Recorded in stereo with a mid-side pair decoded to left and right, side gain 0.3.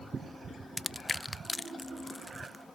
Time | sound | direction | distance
0.8 | crushing | 20° left | 0.5 m